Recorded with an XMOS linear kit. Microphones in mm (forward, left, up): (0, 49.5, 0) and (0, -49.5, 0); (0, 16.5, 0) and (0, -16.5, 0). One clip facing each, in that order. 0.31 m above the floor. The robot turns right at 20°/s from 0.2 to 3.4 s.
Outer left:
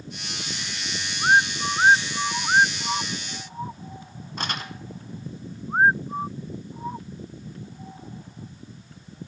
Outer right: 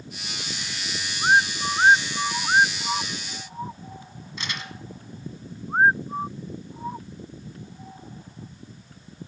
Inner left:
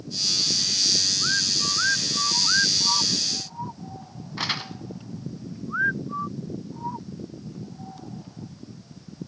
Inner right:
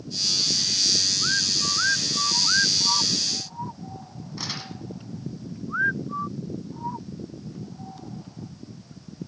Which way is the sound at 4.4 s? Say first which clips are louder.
Outer left 4 dB, inner left 6 dB; 50° left (ahead or behind).